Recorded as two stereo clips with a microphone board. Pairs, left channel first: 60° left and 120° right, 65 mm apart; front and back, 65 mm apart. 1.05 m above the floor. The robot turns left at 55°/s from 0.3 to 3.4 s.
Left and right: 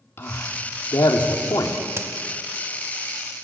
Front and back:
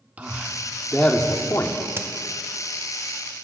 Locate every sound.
0.2 s a man speaking: 115° left, 2.5 m; by 1.8 s 35° left, 2.5 m
2.0 s a crack: 150° right, 0.9 m; by 2.1 s 155° right, 0.9 m